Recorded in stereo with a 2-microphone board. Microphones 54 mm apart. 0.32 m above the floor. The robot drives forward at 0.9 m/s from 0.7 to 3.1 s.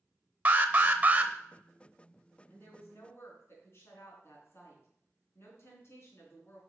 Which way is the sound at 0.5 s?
30° right (ahead or behind).